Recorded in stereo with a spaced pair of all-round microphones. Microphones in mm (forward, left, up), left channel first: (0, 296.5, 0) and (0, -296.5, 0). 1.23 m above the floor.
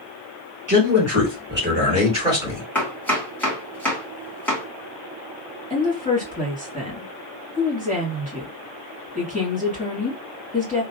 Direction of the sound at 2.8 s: 5° left (ahead or behind).